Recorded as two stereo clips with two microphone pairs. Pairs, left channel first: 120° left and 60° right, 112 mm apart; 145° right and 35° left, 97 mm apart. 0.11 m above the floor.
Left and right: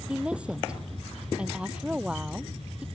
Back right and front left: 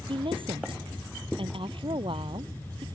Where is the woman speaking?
20° left.